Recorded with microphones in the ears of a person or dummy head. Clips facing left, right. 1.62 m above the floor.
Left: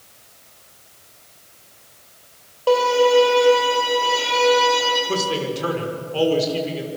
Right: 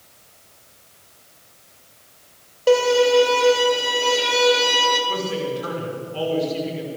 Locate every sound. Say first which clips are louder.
2.7 s a violin: even; 20° right (ahead or behind), 4.5 m
5.1 s a man speaking: left 1 dB; 65° left (ahead or behind), 5.5 m